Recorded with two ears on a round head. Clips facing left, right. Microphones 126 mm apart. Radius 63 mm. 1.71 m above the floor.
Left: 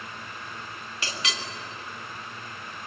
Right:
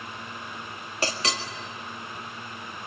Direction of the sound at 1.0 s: 35° right (ahead or behind).